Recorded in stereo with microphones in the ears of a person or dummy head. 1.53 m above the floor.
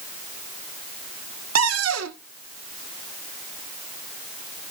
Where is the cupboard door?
75° right (ahead or behind), 1.1 m.